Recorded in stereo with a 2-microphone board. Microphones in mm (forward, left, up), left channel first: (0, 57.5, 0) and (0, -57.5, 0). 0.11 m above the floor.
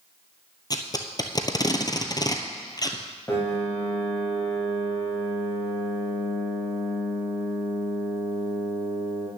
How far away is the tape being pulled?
About 1.0 m.